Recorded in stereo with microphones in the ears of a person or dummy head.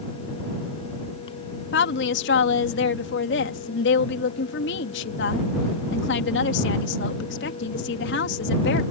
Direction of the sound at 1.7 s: 70° left (ahead or behind).